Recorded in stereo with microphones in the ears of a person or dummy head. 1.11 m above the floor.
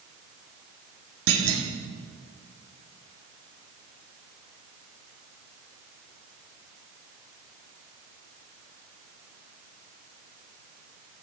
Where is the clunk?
80° right, 1.5 m.